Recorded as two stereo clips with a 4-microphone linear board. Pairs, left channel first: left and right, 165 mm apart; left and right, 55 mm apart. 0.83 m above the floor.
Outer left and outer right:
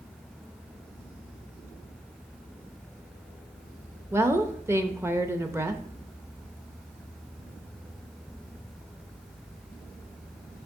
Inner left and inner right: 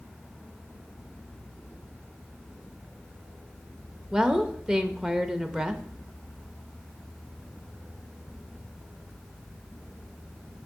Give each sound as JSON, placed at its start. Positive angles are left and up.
{"t": 4.1, "sound": "a woman speaking", "side_deg": -15, "distance_m": 0.7}